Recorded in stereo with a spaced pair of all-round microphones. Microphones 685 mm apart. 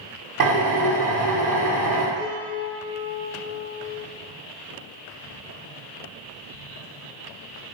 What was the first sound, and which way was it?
A drill, 80° right.